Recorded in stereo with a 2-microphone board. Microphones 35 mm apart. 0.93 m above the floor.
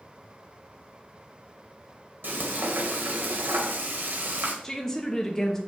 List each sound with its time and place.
2.2 s frying: 75° right (ahead or behind), 1.5 m
4.6 s a woman speaking: 15° left (ahead or behind), 0.9 m